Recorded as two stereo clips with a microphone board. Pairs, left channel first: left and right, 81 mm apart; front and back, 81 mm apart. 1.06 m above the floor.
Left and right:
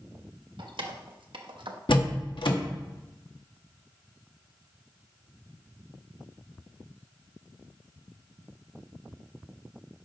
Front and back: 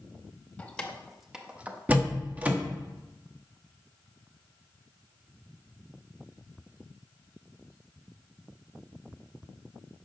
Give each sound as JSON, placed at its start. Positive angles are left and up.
{"t": 0.6, "sound": "keys jangling", "azimuth_deg": -75, "distance_m": 1.3}
{"t": 1.9, "sound": "a door slam", "azimuth_deg": 110, "distance_m": 1.2}